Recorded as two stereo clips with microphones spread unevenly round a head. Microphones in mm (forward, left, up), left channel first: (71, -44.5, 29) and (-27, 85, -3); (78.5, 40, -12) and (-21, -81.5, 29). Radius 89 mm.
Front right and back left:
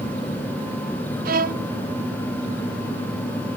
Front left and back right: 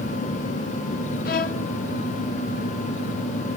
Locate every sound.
1.2 s a violin: 95° left, 0.8 m